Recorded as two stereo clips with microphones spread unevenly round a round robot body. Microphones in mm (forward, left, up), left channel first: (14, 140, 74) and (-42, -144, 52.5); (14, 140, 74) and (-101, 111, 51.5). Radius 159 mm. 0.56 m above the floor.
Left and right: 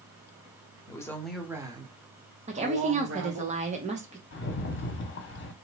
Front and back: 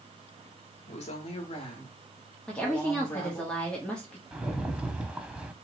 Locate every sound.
0.9 s a woman speaking: straight ahead, 1.1 m; by 3.5 s 75° right, 1.6 m
2.5 s a woman speaking: 80° right, 0.9 m
4.3 s a rattle: 125° left, 1.1 m